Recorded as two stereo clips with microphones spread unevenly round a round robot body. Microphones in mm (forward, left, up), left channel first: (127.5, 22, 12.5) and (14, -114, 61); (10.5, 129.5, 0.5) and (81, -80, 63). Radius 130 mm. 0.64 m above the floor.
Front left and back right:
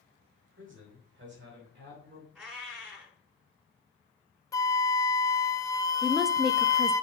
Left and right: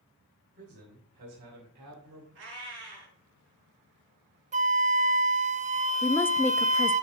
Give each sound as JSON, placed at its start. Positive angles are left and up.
{"t": 0.6, "sound": "a man speaking", "azimuth_deg": -115, "distance_m": 3.5}
{"t": 2.4, "sound": "a cat meowing", "azimuth_deg": -45, "distance_m": 4.5}
{"t": 4.5, "sound": "a flute", "azimuth_deg": -5, "distance_m": 0.7}
{"t": 6.0, "sound": "a woman speaking", "azimuth_deg": 105, "distance_m": 0.5}